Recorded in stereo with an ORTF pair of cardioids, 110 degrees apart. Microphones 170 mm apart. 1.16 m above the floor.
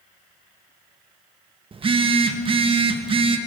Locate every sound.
1.7 s a phone buzzing: 30° right, 1.3 m